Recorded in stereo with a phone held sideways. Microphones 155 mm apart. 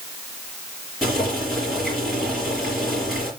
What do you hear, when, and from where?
1.0 s boiling: 5° right (ahead or behind), 5 m